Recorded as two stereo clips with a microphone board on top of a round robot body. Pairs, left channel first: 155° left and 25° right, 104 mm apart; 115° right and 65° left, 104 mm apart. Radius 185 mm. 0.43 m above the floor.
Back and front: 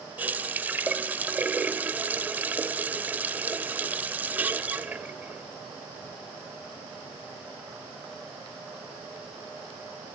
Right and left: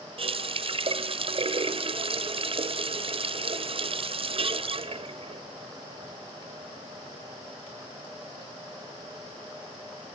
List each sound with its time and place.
0.2 s a running tap: 50° left, 0.6 m